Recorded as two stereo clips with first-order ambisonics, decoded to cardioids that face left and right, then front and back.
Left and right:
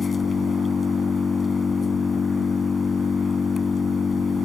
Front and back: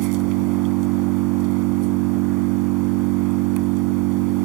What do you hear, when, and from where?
0.0 s an engine running: 165° left